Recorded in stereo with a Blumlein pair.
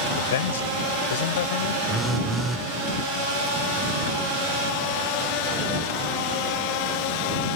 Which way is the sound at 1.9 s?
5° right.